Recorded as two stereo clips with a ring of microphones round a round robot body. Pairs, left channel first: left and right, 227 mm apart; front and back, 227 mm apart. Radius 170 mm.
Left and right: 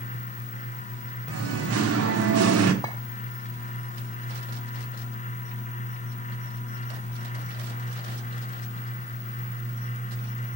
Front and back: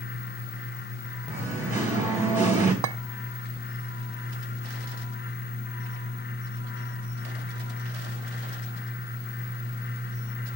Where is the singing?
100° right, 1.2 m.